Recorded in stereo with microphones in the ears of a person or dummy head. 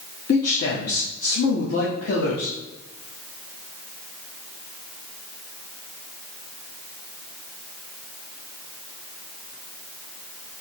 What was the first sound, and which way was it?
A man speaking, 55° left (ahead or behind).